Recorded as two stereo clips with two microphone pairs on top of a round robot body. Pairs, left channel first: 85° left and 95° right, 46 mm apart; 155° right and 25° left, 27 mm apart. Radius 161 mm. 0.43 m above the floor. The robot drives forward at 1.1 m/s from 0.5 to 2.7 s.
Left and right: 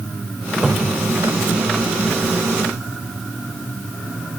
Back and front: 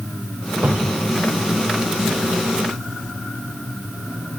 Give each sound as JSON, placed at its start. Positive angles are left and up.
{"t": 0.6, "sound": "a cupboard door", "azimuth_deg": -15}